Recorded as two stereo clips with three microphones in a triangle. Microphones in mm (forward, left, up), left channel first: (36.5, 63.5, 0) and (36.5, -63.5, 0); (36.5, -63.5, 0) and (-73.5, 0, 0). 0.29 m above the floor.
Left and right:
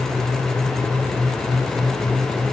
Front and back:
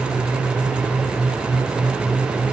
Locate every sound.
Only background noise.